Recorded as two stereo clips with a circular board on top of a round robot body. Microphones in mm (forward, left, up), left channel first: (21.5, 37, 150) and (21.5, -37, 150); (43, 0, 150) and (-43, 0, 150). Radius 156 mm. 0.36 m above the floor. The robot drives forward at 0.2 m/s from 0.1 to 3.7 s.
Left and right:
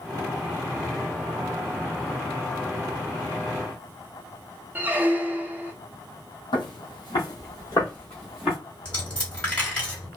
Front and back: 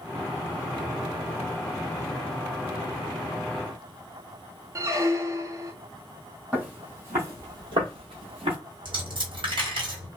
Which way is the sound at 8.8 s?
165° left.